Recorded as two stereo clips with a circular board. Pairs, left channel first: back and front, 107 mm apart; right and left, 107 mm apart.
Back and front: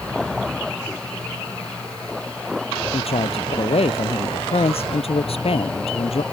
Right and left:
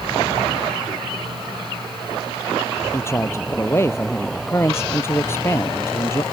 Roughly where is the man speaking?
Behind right.